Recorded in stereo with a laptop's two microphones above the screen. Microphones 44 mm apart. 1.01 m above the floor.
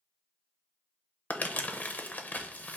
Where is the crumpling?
40° left (ahead or behind), 0.6 m.